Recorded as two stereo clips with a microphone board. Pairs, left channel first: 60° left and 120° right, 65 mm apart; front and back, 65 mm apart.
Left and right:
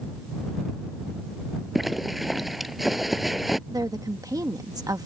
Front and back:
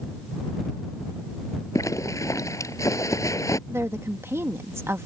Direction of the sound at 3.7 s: 135° right.